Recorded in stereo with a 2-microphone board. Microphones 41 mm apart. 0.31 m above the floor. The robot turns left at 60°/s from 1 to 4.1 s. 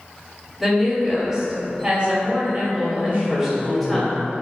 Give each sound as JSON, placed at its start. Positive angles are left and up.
{"t": 0.6, "sound": "a woman speaking", "azimuth_deg": -15, "distance_m": 1.1}
{"t": 3.0, "sound": "a man speaking", "azimuth_deg": -85, "distance_m": 1.0}